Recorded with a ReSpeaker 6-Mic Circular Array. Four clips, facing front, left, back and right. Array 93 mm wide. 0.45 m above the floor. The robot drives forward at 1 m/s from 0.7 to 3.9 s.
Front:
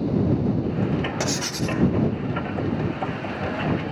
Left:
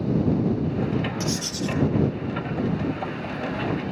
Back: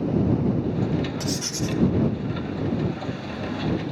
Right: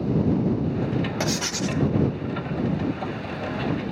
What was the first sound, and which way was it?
Writing, 50° right.